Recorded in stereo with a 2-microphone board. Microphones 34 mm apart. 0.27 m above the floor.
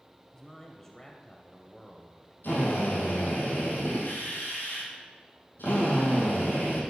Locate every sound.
0.3 s a man speaking: 15° left (ahead or behind), 1.0 m
2.4 s a drill: 80° left, 4 m